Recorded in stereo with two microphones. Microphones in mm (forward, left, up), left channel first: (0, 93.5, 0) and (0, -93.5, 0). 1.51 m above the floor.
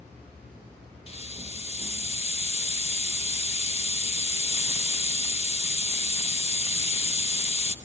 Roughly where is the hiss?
Left.